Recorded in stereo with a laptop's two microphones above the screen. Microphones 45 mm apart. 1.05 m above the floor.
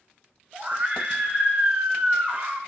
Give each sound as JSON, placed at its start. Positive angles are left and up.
{"t": 0.5, "sound": "a scream", "side_deg": -25, "distance_m": 3.0}